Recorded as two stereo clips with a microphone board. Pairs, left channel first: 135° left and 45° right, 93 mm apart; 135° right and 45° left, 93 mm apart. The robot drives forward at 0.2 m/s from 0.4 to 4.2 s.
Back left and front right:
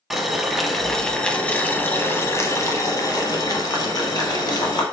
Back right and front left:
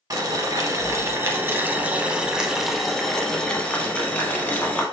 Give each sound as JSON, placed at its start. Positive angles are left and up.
{"t": 0.1, "sound": "boiling", "azimuth_deg": 40, "distance_m": 0.5}